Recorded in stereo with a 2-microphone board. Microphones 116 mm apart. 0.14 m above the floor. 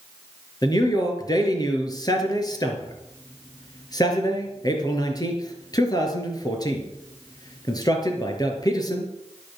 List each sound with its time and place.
0.6 s a man speaking: 35° left (ahead or behind), 3.5 m